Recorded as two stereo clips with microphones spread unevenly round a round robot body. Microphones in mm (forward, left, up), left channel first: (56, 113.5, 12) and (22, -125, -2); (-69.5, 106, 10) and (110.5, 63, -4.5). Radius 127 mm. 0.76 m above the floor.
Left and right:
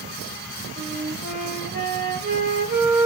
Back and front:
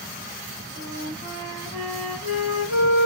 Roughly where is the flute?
Ahead right.